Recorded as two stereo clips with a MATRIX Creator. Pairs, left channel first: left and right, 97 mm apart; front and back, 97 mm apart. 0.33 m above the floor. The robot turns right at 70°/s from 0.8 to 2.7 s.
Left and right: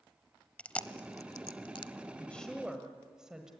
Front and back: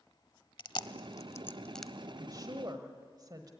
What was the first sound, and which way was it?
Chewing, 15° left.